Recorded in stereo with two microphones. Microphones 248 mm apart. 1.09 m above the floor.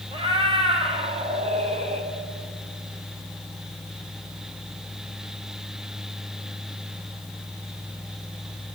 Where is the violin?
No violin in this recording.